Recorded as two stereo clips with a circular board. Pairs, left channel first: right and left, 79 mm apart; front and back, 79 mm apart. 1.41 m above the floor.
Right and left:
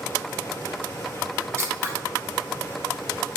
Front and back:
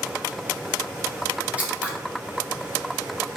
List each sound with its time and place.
1.6 s scissors: 120° left, 1.2 m